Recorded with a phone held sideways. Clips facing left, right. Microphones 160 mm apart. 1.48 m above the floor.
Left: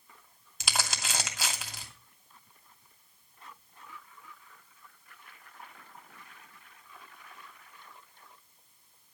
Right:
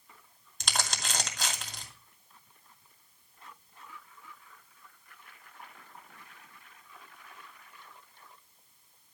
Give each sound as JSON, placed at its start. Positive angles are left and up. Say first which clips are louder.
{"t": 0.6, "sound": "crumpling", "louder": "even", "side_deg": 5, "distance_m": 2.5}